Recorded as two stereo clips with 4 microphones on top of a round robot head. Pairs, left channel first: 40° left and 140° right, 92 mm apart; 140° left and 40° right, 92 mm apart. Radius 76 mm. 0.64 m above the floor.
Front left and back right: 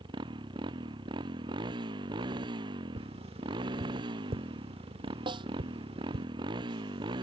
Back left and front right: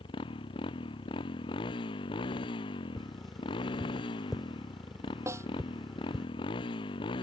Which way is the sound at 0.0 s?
175° left.